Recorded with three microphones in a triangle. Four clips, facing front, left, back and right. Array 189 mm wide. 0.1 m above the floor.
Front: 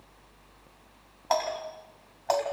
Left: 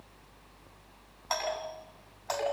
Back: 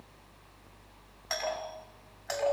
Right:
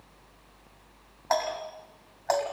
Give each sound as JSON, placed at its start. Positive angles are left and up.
{"t": 1.3, "sound": "a doorbell", "azimuth_deg": -40, "distance_m": 5.5}